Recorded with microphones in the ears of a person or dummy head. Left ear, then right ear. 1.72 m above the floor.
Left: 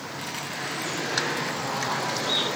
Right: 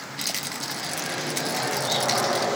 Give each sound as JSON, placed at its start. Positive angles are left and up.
{"t": 0.2, "sound": "a rattle", "side_deg": -30, "distance_m": 0.8}